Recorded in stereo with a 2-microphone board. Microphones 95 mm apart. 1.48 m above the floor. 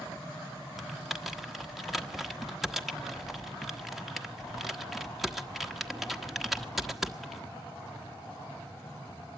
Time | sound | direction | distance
0.8 | typing on a keyboard | centre (ahead or behind) | 1.1 m